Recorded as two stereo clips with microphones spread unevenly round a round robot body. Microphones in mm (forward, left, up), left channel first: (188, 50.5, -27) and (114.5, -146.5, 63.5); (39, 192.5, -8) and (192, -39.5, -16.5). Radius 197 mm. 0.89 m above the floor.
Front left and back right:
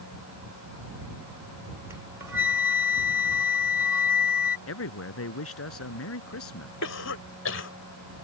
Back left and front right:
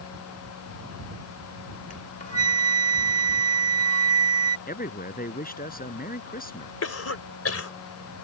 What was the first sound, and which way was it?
A flute, 170° right.